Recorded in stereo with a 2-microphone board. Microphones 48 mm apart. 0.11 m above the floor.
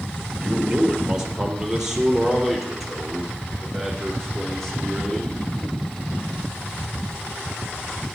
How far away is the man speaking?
About 2 m.